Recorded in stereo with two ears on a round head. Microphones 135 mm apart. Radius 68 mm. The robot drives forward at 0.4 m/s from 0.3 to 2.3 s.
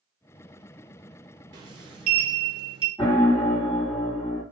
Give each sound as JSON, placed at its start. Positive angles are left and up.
{"t": 1.5, "sound": "a sliding door", "side_deg": -25, "distance_m": 0.6}
{"t": 3.0, "sound": "a piano", "side_deg": 25, "distance_m": 1.8}